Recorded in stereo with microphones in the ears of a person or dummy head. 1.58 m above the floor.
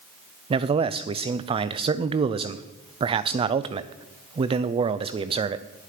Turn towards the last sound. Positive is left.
turn(degrees=-30)  # may be behind; listen again after turning